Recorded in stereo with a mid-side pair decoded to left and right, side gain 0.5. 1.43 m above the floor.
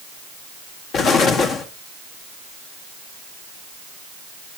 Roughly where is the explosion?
Ahead left.